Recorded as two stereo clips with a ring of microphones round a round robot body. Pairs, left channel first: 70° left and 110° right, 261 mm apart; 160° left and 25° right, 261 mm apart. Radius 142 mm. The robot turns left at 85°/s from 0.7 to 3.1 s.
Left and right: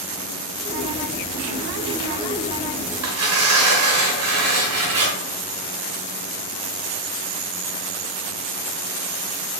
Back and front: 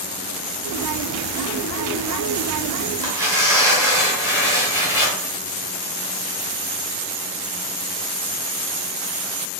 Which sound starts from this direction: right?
Tearing paper, at 3.0 s.